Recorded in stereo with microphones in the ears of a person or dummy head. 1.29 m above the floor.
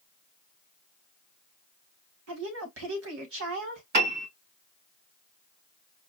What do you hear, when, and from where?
2.3 s a woman speaking: 75° right (ahead or behind), 1.9 m
3.9 s a piano: 50° right (ahead or behind), 2.5 m